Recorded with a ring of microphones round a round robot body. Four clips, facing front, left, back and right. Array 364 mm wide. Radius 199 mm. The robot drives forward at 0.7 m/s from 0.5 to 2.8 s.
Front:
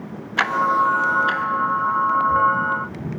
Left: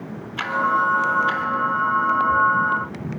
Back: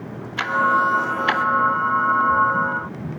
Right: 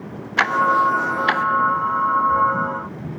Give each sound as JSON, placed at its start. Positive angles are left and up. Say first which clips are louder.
{"t": 0.4, "sound": "ticking", "louder": "right 4 dB, even", "azimuth_deg": -65, "distance_m": 0.6}